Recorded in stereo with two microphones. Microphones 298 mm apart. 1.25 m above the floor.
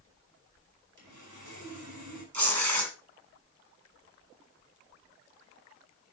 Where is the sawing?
85° right, 4.5 m.